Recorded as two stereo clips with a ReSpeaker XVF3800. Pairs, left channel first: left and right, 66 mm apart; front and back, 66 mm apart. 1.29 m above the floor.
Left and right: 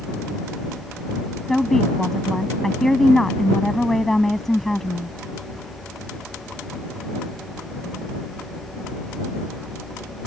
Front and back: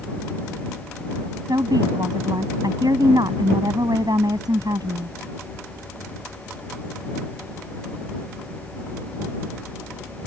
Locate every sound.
1.5 s a woman speaking: 175° left